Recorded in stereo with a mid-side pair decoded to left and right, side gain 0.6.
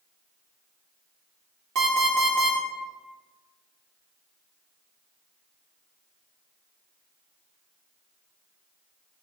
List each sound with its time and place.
1.8 s an alarm clock: 70° right, 1.2 m